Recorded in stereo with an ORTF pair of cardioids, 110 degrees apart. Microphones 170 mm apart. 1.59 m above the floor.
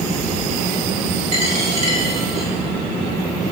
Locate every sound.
1.3 s a dropped coin: 45° right, 4.5 m